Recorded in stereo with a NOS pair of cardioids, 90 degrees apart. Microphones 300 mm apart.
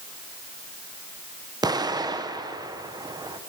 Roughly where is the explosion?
Ahead.